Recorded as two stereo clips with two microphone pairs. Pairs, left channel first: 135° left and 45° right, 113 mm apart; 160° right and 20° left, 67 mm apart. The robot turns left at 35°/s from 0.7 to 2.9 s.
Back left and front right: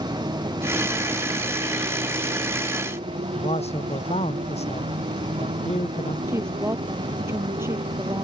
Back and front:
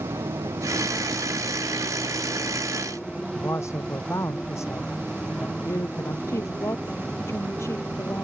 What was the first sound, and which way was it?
A motorcycle, 5° left.